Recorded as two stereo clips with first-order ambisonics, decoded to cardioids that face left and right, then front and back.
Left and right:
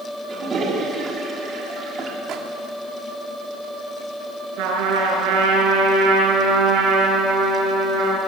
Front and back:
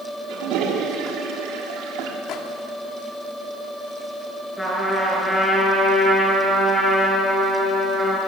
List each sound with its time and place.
0.3 s a toilet flushing: 155° right, 3.5 m
2.3 s a microwave: 45° right, 2 m
4.6 s a trumpet: 85° right, 5.5 m